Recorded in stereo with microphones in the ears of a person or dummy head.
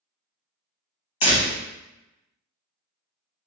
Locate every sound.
1.2 s a door slam: 35° left (ahead or behind), 1.3 m